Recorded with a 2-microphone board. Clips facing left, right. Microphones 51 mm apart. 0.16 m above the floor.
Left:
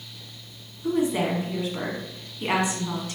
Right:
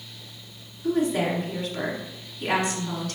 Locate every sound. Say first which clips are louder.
0.8 s a woman speaking: even; 20° left (ahead or behind), 1.3 m